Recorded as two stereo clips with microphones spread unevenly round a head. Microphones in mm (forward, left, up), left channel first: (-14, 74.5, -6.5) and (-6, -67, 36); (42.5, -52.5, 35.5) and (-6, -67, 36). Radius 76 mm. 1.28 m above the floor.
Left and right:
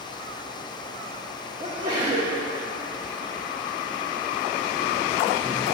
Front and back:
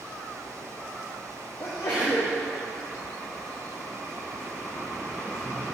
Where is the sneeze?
25° right, 1.0 m.